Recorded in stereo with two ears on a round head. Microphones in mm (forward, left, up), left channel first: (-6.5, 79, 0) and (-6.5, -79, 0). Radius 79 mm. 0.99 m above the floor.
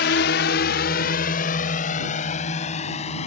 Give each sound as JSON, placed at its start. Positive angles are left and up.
{"t": 0.0, "sound": "a drone", "side_deg": 65}